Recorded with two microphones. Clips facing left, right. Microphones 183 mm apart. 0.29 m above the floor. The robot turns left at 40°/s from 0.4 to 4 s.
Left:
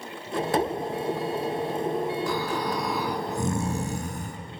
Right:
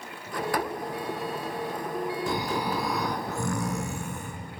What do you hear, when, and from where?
2.3 s snoring: 155° right, 3.5 m; by 4.4 s 135° left, 3.5 m